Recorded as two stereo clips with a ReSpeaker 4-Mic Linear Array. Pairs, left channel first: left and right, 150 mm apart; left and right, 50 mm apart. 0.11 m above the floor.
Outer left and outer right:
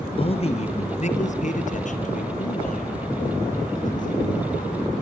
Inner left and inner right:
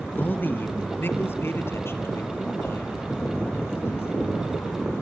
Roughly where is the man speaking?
Left.